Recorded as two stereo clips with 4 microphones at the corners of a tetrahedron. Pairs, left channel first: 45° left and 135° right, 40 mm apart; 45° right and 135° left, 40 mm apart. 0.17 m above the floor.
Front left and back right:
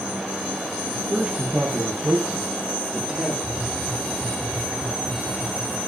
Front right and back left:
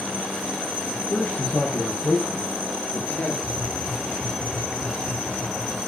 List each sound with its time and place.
0.9 s a man speaking: 70° right, 4.5 m; by 3.3 s 65° right, 5.5 m
3.4 s tapping: 120° left, 4.5 m